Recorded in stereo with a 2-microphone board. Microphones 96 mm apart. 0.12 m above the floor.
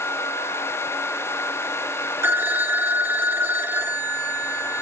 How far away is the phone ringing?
About 0.8 m.